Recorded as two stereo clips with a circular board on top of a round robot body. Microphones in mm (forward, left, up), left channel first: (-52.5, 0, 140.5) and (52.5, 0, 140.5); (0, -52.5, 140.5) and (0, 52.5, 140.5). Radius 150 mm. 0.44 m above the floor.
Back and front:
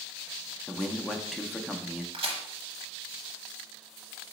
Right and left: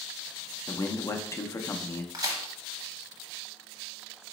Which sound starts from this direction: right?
A man speaking, at 0.7 s.